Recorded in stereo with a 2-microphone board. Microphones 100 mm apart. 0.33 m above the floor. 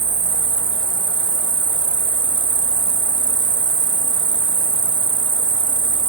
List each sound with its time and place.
0.0 s an insect: 55° right (ahead or behind), 0.9 m